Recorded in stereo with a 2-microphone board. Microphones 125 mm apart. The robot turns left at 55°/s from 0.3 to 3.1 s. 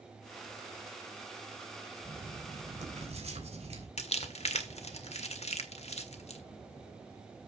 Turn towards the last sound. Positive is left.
turn(degrees=65)  # may be behind; listen again after turning